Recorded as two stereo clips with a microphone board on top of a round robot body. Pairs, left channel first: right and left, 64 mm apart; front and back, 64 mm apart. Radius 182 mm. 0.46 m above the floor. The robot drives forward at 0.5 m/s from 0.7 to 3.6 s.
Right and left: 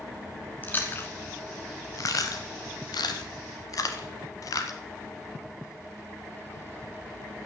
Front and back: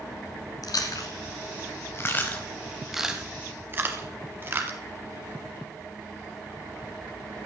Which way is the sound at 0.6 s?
30° right.